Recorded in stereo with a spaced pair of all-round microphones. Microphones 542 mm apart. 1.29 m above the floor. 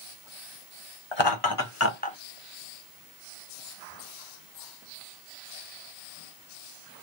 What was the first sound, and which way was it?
Laughter, 55° left (ahead or behind).